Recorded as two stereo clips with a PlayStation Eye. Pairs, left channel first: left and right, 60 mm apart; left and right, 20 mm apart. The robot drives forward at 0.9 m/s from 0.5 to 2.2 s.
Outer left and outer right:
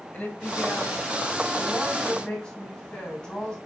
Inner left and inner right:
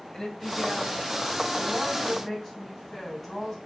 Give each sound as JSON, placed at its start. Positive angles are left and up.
{"t": 0.1, "sound": "a woman speaking", "side_deg": 25, "distance_m": 2.0}